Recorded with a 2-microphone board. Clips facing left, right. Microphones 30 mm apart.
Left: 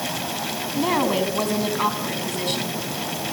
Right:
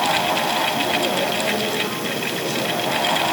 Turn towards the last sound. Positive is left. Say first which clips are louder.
# right 1 dB
turn(degrees=60)  # may be behind; listen again after turning